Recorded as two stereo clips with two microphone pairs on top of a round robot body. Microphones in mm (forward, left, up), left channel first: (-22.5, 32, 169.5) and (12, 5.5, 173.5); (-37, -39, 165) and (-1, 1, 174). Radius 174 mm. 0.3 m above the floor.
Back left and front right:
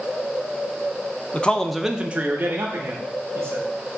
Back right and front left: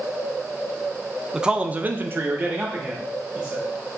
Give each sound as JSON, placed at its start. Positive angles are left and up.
{"t": 1.3, "sound": "a man speaking", "azimuth_deg": 135, "distance_m": 0.9}